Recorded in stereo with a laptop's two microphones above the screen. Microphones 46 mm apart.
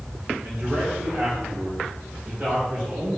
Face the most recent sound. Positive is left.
turn(degrees=-15)  # may be behind; listen again after turning